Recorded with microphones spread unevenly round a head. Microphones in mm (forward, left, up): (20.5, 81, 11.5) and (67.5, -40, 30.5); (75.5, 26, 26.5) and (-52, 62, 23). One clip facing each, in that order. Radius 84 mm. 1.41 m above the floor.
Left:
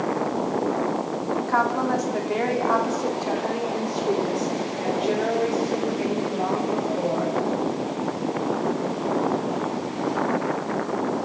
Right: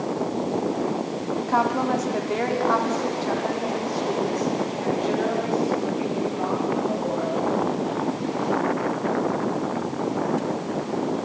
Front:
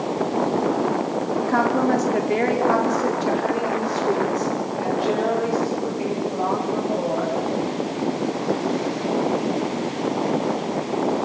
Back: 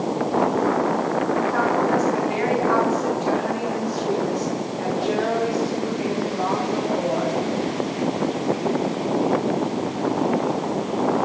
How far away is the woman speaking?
About 3.5 m.